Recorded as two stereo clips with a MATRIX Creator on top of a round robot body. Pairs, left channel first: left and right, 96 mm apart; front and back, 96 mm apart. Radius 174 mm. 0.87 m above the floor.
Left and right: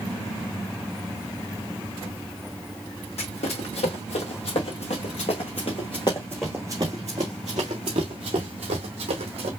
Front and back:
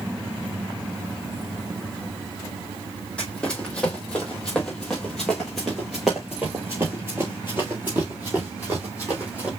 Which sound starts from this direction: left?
Running footsteps, at 3.2 s.